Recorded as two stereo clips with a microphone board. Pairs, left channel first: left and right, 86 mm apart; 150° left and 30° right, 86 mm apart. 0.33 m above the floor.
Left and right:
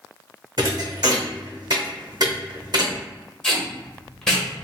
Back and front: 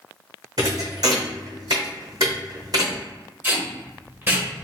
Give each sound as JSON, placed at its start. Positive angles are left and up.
{"t": 0.6, "sound": "a thud", "azimuth_deg": -65, "distance_m": 0.8}
{"t": 3.4, "sound": "tape being pulled", "azimuth_deg": 15, "distance_m": 0.9}